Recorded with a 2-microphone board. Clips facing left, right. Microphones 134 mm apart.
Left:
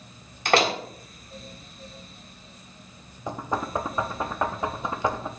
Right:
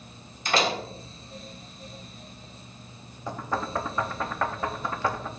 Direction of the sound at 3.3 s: 20° left (ahead or behind).